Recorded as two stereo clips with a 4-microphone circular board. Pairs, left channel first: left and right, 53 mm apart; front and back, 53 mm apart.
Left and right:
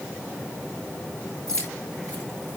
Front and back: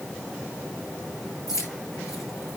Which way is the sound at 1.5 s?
20° left.